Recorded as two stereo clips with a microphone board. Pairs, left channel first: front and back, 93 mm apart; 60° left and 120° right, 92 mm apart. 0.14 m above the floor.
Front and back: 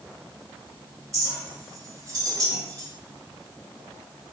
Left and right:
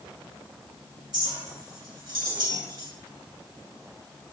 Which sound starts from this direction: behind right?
A clink, at 1.1 s.